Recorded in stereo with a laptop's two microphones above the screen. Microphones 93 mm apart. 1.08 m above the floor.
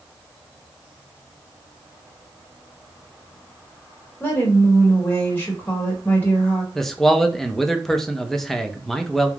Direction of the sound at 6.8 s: 5° left (ahead or behind).